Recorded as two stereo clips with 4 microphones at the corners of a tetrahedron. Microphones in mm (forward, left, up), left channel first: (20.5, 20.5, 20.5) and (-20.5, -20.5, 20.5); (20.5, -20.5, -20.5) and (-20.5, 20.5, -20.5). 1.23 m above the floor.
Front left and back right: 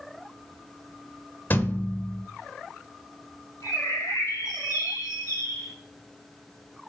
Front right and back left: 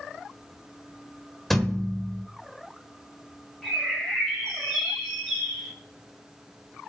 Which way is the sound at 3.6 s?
35° left.